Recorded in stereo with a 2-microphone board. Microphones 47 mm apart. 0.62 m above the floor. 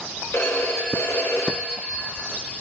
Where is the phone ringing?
80° left, 1.3 m.